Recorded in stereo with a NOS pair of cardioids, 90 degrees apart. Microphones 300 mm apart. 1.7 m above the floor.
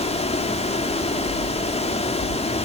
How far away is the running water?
About 3 m.